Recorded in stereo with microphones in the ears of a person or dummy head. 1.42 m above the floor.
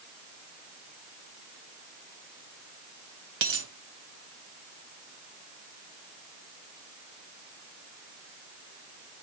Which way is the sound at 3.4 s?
50° right (ahead or behind).